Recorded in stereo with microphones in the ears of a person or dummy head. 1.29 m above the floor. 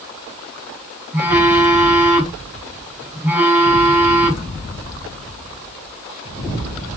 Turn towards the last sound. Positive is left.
turn(degrees=-5)  # may be behind; listen again after turning